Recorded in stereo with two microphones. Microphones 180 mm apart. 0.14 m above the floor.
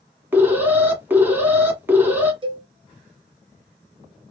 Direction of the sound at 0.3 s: 10° right (ahead or behind).